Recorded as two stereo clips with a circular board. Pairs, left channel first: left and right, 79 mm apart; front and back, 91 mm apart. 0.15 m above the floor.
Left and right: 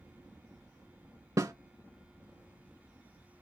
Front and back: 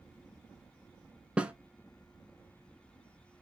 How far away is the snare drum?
About 0.5 m.